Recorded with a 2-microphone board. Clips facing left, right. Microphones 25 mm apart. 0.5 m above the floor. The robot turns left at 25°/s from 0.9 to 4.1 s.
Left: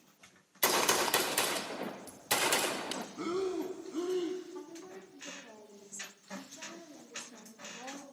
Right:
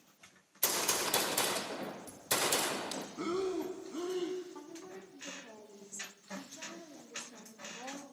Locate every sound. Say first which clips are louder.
0.6 s a gunshot: left 5 dB; 125° left, 0.5 m; by 3.1 s 75° left, 0.5 m
3.2 s breathing: even; 5° right (ahead or behind), 0.7 m; by 4.4 s 15° left (ahead or behind), 0.7 m
4.5 s a woman speaking: left 1 dB; 25° right (ahead or behind), 1.0 m